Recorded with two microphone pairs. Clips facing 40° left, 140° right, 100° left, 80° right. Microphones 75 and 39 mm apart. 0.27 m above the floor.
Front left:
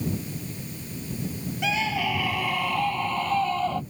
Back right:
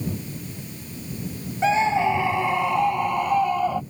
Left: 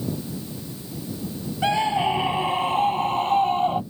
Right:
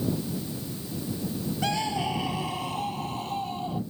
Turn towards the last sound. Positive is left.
turn(degrees=145)